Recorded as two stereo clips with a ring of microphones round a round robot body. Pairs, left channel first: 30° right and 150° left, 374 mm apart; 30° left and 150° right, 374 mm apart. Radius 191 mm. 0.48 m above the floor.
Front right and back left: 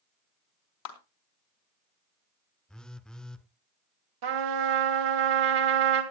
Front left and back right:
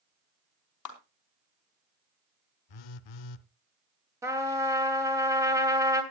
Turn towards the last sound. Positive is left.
turn(degrees=130)